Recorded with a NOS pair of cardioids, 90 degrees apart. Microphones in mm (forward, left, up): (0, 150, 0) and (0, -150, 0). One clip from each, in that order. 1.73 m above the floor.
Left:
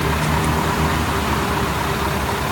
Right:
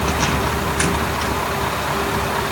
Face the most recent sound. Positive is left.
No sound to turn to.